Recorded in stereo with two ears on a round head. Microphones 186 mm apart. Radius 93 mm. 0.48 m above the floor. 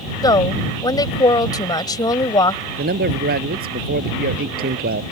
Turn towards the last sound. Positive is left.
turn(degrees=-50)  # may be behind; listen again after turning